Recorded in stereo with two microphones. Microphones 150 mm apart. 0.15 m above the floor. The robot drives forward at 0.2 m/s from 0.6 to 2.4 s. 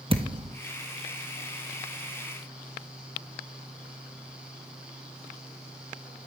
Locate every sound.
0.1 s a thud: 35° right (ahead or behind), 1.4 m